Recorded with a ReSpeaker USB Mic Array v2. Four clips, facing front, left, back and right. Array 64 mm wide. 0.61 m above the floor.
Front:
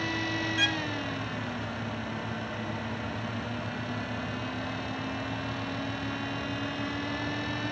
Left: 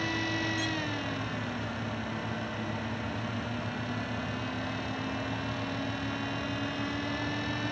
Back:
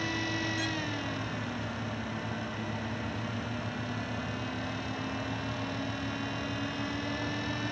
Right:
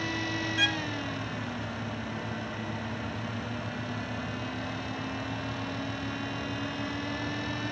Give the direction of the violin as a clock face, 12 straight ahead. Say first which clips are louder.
Right 3 dB, front 4 dB; 2 o'clock.